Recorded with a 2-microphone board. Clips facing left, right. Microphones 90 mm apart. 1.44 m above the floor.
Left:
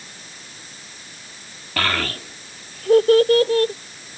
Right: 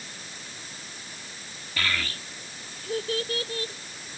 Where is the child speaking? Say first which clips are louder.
Left 7 dB; 65° left (ahead or behind); by 3.7 s 70° left (ahead or behind).